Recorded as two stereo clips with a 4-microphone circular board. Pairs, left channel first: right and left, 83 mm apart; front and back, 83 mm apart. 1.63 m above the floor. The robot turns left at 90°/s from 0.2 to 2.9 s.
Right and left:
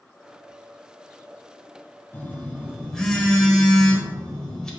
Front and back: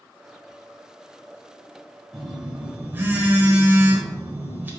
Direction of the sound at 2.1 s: 90° right.